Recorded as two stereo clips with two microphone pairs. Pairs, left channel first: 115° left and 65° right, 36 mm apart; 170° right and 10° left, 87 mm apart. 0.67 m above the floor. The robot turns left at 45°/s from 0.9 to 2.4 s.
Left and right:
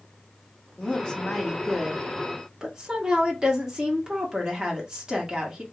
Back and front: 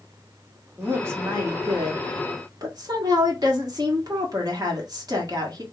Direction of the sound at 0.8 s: 65° left.